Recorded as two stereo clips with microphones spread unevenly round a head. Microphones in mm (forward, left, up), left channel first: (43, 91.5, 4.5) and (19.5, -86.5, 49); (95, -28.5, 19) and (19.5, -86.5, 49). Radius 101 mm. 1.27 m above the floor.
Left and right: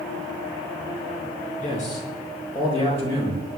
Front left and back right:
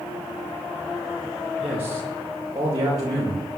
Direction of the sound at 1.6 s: 135° left.